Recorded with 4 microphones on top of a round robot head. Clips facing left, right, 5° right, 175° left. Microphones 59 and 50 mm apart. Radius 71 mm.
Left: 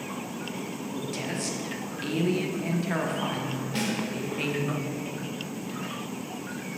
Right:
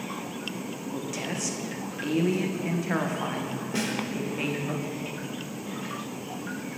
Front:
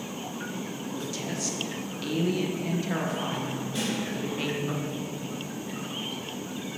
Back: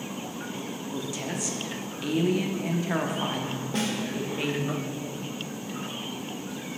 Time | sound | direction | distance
0.9 | a woman speaking | 150° right | 0.8 m
3.7 | a snare drum | 160° right | 1.6 m